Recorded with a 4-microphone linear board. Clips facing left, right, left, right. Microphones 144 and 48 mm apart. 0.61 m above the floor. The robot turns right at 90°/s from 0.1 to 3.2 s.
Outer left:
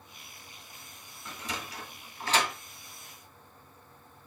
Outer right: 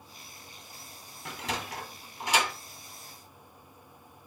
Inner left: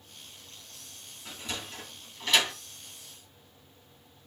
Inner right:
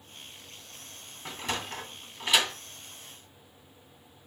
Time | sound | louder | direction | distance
1.2 | a sliding door | outer right 4 dB, inner right 5 dB | 70° right (ahead or behind) | 2 m